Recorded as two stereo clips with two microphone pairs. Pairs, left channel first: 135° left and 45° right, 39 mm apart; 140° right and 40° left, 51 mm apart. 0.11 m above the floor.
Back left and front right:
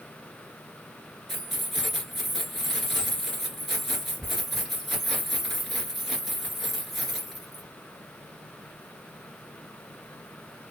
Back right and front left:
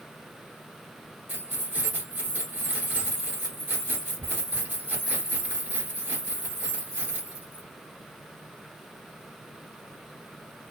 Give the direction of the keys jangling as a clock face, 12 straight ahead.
11 o'clock.